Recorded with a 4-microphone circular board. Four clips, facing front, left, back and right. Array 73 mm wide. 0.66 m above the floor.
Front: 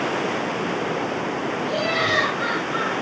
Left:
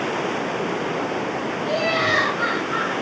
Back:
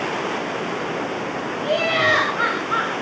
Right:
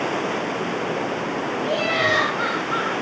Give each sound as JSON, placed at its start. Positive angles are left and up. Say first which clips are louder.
{"t": 1.6, "sound": "laughter", "louder": "even, back 5 dB", "azimuth_deg": -170, "distance_m": 5.5}